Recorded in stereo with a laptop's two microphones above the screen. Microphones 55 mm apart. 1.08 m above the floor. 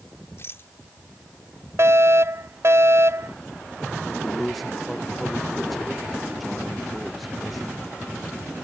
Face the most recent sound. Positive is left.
turn(degrees=0)  # may be behind; listen again after turning